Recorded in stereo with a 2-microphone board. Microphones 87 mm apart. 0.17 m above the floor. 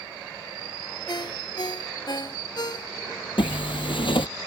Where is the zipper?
70° left (ahead or behind).